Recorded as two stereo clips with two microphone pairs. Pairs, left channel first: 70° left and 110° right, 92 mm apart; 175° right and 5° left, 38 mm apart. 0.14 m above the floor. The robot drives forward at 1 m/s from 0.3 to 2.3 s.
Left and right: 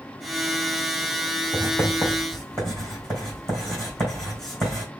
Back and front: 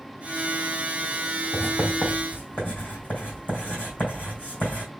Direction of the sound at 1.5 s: 150° left.